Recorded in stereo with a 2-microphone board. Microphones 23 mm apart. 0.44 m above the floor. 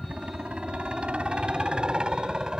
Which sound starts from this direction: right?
A helicopter, at 0.0 s.